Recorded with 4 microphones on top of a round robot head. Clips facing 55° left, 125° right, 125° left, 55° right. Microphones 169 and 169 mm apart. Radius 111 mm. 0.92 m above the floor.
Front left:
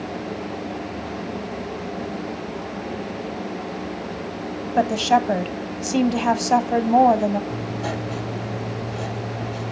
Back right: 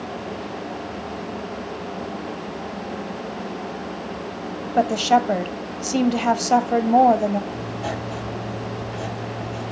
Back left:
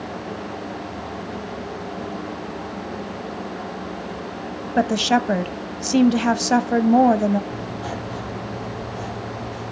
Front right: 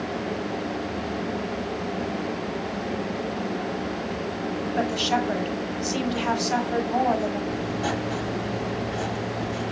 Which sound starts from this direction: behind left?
A woman speaking, at 4.8 s.